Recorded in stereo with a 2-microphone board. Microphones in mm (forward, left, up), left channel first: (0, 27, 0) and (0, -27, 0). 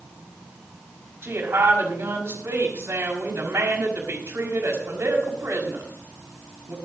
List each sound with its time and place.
1.2 s a woman speaking: 50° right (ahead or behind), 5.5 m